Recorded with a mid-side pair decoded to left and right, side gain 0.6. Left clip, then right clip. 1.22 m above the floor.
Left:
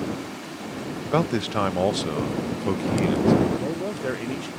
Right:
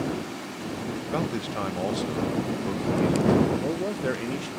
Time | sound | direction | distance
1.1 | a man speaking | 35° left | ?
3.6 | a man speaking | straight ahead | ?